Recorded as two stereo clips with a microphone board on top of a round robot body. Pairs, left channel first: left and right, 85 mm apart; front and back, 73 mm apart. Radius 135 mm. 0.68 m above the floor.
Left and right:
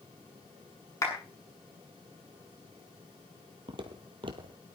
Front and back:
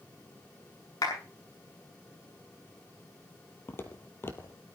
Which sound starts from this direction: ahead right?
Footsteps, at 3.7 s.